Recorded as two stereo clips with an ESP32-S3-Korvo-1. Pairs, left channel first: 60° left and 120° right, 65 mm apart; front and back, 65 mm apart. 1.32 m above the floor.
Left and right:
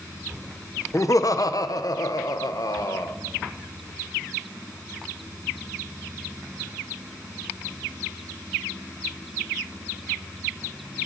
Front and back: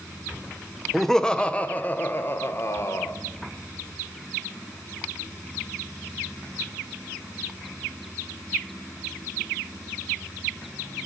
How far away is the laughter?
About 1.0 m.